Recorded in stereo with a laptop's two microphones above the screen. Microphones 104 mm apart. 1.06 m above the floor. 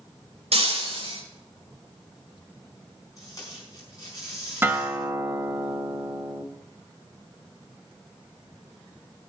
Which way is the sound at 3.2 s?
35° left (ahead or behind).